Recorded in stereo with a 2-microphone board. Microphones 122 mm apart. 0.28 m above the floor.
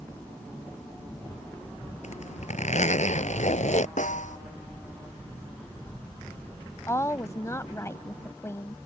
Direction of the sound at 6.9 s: 25° left (ahead or behind).